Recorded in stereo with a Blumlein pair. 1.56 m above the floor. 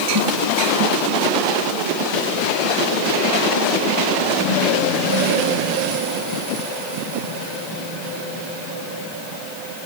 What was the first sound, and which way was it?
Only background noise.